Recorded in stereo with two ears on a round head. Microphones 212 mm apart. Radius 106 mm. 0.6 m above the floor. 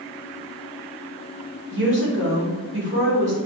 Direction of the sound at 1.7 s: 50° right (ahead or behind).